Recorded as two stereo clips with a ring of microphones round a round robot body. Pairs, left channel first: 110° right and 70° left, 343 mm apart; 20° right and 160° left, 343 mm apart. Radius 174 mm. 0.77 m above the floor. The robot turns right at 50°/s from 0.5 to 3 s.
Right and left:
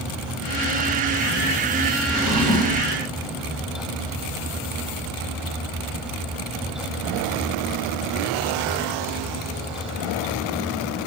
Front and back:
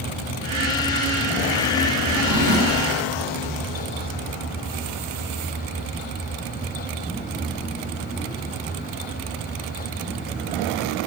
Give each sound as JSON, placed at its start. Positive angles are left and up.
{"t": 2.1, "sound": "a drawer", "azimuth_deg": 145, "distance_m": 1.9}